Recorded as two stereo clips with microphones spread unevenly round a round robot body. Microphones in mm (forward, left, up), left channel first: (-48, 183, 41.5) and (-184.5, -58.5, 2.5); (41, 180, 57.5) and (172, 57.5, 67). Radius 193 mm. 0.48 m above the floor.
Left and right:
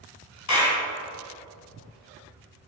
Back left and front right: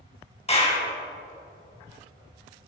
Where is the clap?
80° left, 3 m.